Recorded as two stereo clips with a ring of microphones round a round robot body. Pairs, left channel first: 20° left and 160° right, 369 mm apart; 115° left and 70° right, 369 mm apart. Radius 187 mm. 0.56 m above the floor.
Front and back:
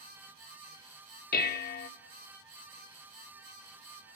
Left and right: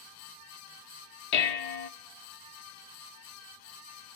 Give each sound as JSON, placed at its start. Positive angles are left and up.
{"t": 1.3, "sound": "dishes clattering", "azimuth_deg": 90, "distance_m": 0.7}